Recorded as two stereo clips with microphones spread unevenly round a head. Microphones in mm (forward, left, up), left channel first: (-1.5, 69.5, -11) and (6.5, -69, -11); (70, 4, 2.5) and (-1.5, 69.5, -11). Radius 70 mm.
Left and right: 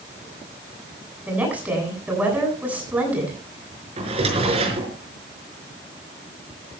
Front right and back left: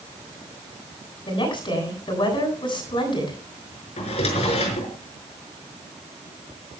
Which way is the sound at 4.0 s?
35° right.